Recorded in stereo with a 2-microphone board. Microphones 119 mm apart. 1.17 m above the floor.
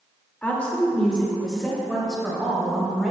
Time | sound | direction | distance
0.4 | a woman speaking | 15° left (ahead or behind) | 2 m